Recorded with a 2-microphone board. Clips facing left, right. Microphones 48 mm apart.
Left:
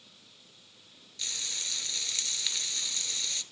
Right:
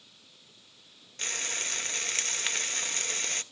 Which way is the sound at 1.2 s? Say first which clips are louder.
Right 5 dB; 45° right (ahead or behind).